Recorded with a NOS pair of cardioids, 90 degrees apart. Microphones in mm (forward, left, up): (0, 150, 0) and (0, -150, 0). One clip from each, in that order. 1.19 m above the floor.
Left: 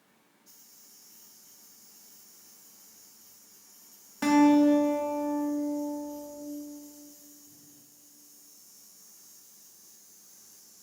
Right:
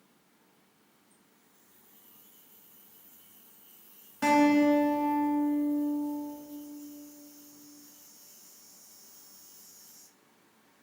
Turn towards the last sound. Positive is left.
turn(degrees=20)